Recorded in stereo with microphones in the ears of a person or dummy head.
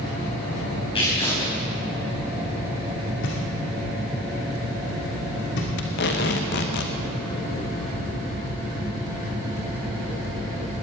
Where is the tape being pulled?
55° left (ahead or behind), 1.0 m.